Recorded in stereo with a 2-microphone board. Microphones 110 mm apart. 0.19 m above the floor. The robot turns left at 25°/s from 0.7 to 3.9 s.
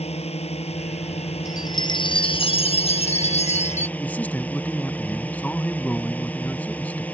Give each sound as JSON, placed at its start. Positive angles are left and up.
{"t": 0.0, "sound": "a drone", "azimuth_deg": 95}
{"t": 1.4, "sound": "a chime", "azimuth_deg": 145}
{"t": 4.0, "sound": "a man speaking", "side_deg": 15}